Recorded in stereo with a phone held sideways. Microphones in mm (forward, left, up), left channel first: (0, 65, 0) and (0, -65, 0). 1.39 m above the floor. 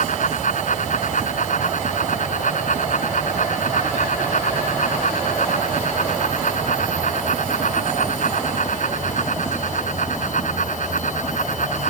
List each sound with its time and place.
0.0 s a fan: 70° left (ahead or behind)